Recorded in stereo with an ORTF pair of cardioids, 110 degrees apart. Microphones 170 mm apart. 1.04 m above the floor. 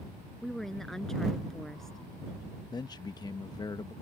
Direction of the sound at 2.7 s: 25° left.